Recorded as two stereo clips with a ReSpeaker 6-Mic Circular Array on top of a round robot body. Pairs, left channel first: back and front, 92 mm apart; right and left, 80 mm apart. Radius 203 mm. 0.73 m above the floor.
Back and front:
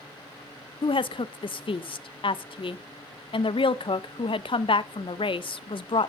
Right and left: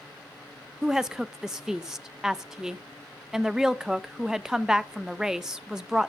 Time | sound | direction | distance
0.8 | a woman speaking | 170° left | 0.8 m